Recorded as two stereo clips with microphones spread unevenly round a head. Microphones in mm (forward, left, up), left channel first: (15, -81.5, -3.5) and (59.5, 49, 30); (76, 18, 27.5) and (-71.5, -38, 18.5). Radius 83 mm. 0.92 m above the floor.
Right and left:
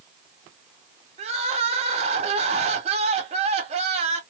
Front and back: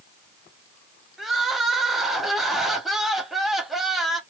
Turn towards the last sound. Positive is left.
turn(degrees=115)